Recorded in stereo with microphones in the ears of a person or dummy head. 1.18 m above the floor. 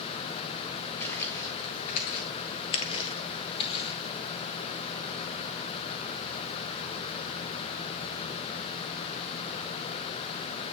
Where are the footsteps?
15° left (ahead or behind), 1.4 m; by 4.0 s 30° left (ahead or behind), 2.5 m.